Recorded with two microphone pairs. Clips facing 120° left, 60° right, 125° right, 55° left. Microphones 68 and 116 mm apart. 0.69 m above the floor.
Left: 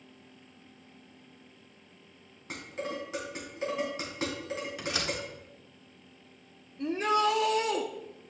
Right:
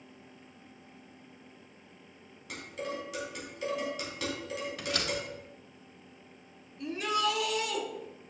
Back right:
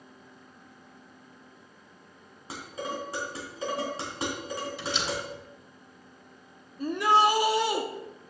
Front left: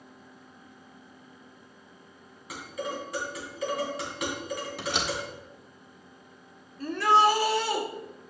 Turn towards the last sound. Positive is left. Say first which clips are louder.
# left 4 dB, front left 1 dB
turn(degrees=170)